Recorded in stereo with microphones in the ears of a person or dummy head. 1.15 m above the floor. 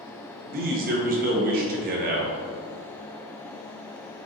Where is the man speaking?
40° right (ahead or behind), 0.8 m.